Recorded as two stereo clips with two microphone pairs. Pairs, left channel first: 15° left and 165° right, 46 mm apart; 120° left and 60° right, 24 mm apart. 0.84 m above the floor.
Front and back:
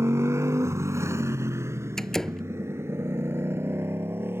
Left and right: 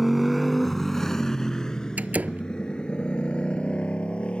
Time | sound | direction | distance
0.0 | a motorcycle | 145° right | ?
2.0 | a door slam | 60° right | ?